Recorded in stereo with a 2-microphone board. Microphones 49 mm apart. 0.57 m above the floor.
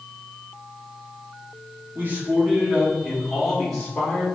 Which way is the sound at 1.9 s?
40° right (ahead or behind).